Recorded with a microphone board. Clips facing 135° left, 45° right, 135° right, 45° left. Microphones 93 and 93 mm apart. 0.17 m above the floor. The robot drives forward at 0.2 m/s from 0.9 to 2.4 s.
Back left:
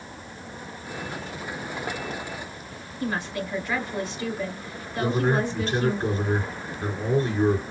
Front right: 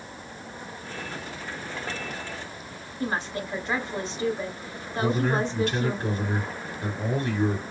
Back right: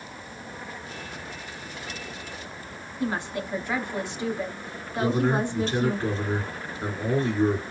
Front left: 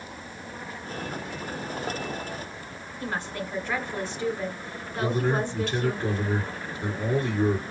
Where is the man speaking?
Straight behind, 2.5 m.